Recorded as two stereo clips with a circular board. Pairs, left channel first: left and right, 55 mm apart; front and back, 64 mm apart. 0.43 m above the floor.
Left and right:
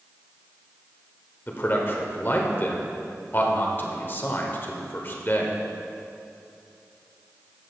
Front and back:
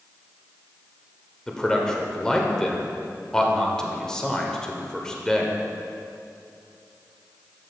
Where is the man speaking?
75° left, 1.2 m.